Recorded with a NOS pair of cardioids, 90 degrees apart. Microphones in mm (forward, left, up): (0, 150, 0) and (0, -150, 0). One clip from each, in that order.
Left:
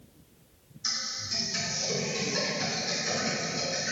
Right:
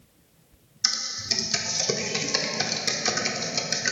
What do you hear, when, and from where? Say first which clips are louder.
0.8 s typing on a keyboard: right 6 dB; 70° right, 0.6 m